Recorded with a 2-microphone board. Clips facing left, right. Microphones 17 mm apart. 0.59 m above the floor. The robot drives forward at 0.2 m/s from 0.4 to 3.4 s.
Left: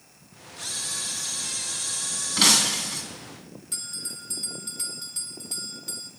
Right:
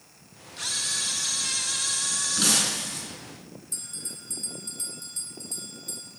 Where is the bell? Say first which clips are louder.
Left 4 dB; 60° left (ahead or behind), 2 m.